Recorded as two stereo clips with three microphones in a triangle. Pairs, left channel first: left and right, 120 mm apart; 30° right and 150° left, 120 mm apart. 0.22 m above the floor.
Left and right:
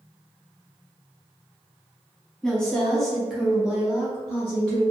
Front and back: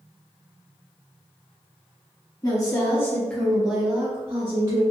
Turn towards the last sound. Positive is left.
turn(degrees=-165)